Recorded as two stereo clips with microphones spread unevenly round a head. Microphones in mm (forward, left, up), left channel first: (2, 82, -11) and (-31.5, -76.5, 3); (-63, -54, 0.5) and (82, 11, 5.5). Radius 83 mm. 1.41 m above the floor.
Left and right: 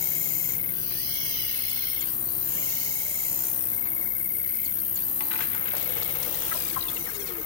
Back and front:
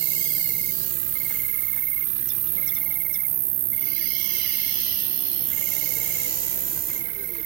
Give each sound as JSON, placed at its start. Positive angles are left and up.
{"t": 0.0, "sound": "an insect", "azimuth_deg": 15}